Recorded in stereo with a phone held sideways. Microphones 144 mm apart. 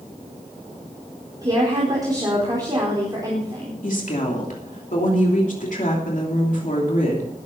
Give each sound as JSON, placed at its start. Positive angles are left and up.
{"t": 1.4, "sound": "a woman speaking", "side_deg": -25, "distance_m": 4.5}
{"t": 3.8, "sound": "a woman speaking", "side_deg": 65, "distance_m": 3.0}